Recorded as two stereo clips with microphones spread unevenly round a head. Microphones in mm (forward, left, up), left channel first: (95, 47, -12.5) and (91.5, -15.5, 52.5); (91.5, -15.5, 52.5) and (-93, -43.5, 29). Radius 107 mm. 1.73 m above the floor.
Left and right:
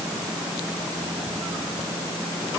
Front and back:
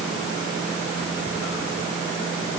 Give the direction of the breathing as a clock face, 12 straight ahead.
No breathing in this recording.